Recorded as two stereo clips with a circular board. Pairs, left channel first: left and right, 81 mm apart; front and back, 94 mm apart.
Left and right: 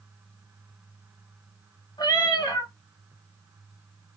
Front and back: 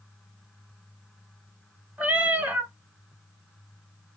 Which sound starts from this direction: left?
A cat meowing, at 2.0 s.